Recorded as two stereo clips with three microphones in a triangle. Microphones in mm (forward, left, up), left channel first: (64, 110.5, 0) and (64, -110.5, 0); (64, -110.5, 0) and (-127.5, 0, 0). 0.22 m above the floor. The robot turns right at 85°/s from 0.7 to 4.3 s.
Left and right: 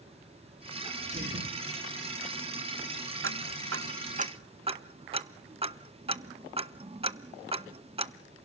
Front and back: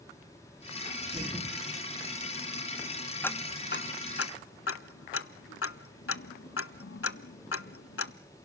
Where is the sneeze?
165° right, 3.5 m; by 1.6 s 105° right, 3.5 m.